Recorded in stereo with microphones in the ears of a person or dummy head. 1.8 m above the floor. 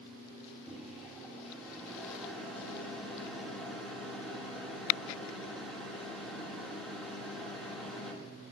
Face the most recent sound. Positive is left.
turn(degrees=5)  # may be behind; listen again after turning